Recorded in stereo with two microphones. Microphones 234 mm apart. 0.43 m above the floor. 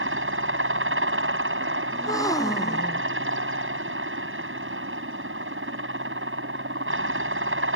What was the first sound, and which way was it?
A helicopter, 60° right (ahead or behind).